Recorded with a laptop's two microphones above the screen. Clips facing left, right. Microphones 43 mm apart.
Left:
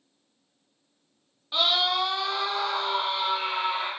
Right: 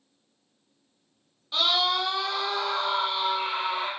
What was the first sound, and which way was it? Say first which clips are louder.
A scream: even; 15° left (ahead or behind).